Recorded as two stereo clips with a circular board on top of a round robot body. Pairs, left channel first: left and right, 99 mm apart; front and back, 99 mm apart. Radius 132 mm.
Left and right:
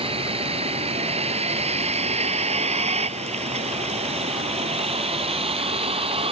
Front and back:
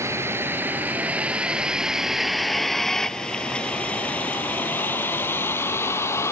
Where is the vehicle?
115° right; by 6.3 s 65° right.